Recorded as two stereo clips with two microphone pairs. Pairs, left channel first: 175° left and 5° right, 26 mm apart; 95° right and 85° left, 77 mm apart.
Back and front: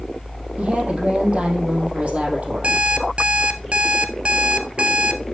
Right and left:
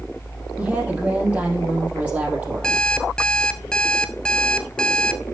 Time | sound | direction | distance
0.6 | a woman speaking | 15° left | 3.5 m
2.6 | an alarm clock | 20° right | 0.8 m